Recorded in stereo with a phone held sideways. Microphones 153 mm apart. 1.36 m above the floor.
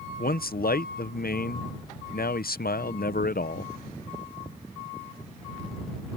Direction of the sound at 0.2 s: 75° left (ahead or behind).